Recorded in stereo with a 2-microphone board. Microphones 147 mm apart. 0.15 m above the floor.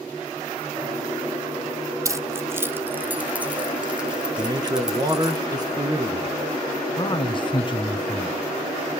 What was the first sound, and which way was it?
Keys jangling, 20° right (ahead or behind).